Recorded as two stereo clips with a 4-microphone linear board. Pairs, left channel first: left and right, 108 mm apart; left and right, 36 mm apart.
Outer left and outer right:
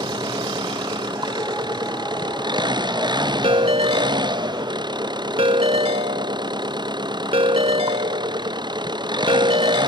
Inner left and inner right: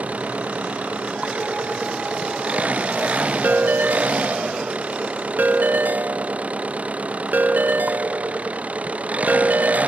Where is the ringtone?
65° right (ahead or behind).